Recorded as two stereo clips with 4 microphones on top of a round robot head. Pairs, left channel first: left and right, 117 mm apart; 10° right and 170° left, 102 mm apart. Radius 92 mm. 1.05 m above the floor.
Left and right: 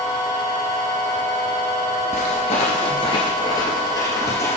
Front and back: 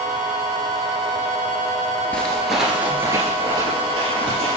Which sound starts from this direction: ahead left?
Footsteps, at 2.1 s.